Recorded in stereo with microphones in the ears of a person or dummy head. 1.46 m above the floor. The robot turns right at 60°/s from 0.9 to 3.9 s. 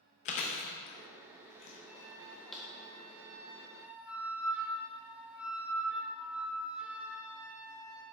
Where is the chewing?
45° left (ahead or behind), 0.7 m; by 2.6 s 5° right (ahead or behind), 0.7 m.